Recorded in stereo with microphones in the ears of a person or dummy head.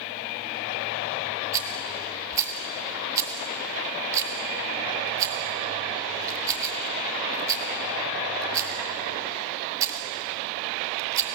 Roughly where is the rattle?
Right.